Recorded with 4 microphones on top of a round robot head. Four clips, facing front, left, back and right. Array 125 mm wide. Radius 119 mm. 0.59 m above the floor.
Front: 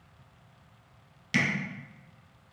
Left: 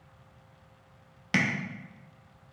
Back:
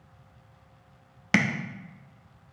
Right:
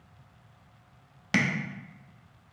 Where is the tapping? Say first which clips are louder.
Right 1 dB, back 4 dB; 175° right, 0.6 m.